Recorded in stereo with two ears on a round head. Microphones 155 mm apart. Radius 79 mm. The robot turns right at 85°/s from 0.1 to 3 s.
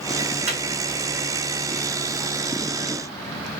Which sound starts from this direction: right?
A microwave, at 0.5 s.